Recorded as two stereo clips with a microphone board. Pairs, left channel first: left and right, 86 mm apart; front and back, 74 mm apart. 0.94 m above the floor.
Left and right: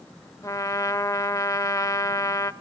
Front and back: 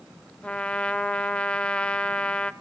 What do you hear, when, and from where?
0.4 s a trumpet: 65° left, 0.5 m